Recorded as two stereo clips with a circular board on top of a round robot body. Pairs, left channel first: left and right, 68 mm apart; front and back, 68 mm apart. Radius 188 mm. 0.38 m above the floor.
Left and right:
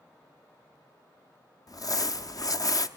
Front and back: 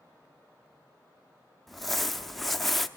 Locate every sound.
1.7 s crumpling: 90° left, 0.9 m